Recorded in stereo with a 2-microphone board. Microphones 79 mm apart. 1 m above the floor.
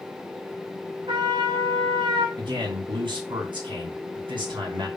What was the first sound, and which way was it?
A trumpet, 65° right (ahead or behind).